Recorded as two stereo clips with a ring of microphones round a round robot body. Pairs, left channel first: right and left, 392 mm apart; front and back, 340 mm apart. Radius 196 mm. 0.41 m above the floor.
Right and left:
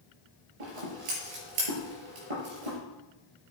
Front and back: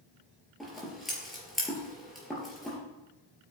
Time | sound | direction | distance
0.6 | scissors | 90° left | 4.5 m